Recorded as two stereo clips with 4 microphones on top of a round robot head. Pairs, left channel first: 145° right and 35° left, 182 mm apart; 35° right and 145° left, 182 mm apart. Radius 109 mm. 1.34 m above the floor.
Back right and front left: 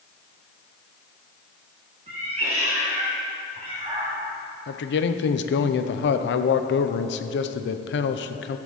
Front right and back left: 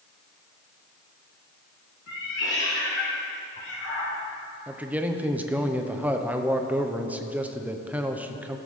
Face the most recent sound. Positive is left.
turn(degrees=-135)